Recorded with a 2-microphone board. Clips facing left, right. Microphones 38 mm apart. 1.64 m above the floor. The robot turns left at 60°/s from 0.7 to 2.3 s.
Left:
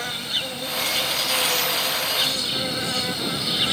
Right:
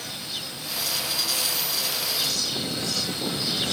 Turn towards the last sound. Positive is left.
turn(degrees=35)